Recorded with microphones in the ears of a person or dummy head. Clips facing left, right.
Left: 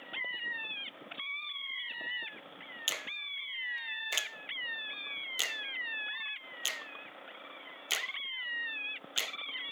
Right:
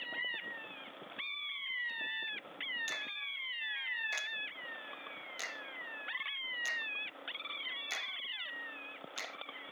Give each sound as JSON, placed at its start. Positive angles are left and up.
{"t": 2.9, "sound": "a finger snap", "side_deg": 40}